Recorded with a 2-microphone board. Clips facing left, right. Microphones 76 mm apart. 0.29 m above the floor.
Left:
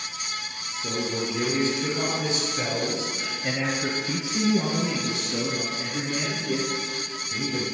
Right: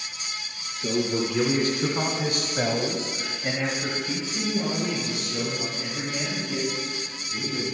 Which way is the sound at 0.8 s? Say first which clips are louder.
Right 4 dB; 65° right (ahead or behind).